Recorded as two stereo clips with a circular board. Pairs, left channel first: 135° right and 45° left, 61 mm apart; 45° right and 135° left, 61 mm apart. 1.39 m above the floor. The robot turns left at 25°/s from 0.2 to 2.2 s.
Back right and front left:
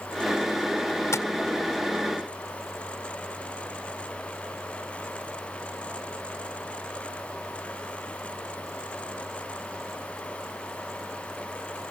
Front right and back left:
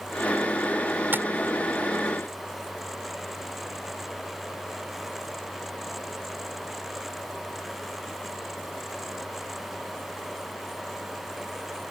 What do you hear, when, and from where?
1.1 s tapping: 170° right; by 1.3 s 175° right